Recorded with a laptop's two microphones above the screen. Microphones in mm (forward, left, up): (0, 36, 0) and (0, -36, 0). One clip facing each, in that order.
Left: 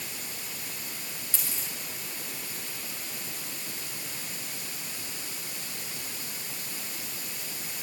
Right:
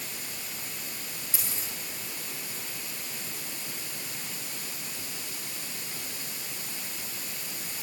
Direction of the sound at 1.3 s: 15° right (ahead or behind).